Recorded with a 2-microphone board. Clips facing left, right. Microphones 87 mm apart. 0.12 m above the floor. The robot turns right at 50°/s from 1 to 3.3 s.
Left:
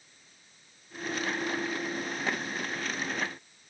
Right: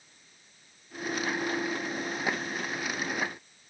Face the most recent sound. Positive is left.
No sound to turn to.